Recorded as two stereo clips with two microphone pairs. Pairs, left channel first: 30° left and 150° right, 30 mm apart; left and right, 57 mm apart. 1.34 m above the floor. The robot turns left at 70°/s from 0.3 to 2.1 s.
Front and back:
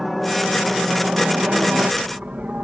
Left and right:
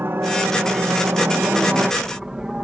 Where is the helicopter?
60° right; by 2.6 s 160° right.